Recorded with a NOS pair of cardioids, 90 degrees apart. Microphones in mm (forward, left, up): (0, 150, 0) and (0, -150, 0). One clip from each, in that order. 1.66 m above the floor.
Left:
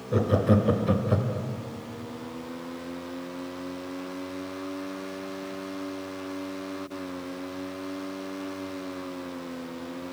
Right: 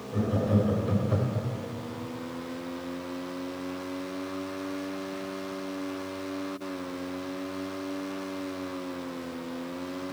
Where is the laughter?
70° left, 1.0 m; by 1.5 s 5° left, 0.7 m.